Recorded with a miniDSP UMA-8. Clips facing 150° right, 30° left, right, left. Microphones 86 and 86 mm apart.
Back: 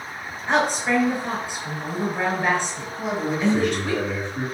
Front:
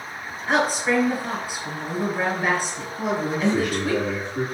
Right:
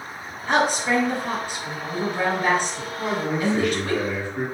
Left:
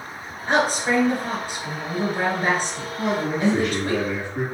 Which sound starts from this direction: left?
A woman speaking, at 0.5 s.